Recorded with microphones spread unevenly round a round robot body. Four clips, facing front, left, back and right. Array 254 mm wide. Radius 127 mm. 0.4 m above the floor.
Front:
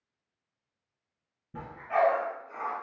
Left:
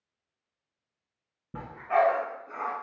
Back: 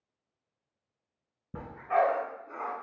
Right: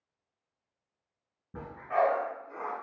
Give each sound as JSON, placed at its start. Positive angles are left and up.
{"t": 1.5, "sound": "a dog barking", "azimuth_deg": 140, "distance_m": 1.4}